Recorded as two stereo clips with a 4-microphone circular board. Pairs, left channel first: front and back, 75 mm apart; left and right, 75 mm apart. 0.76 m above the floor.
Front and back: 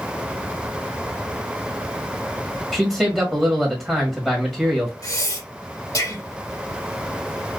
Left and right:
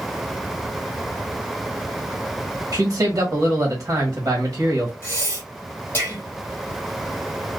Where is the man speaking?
95° right, 1.1 m.